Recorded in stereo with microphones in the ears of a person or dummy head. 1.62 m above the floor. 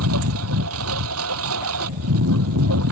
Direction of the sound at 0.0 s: 80° right.